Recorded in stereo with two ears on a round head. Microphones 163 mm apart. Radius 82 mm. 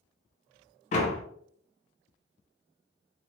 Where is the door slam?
35° left (ahead or behind), 0.6 m.